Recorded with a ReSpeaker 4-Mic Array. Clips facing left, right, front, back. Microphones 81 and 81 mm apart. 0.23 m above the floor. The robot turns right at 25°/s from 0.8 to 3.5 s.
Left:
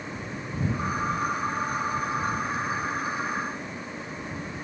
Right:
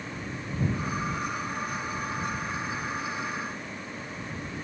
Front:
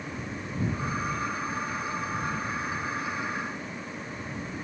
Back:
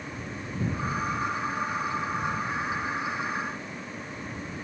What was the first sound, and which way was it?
Only background noise.